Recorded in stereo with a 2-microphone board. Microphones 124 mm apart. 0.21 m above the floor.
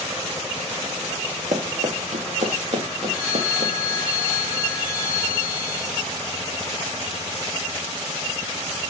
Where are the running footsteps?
80° right, 1.7 m; by 4.0 s 60° right (ahead or behind), 3 m.